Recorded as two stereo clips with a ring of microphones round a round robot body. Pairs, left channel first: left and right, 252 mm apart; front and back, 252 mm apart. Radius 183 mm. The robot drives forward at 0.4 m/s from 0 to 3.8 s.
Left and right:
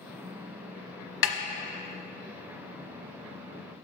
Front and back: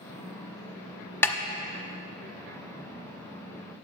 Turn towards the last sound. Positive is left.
turn(degrees=135)